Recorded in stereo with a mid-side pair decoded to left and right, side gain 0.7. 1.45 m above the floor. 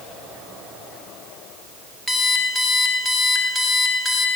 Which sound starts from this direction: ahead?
An alarm clock, at 2.1 s.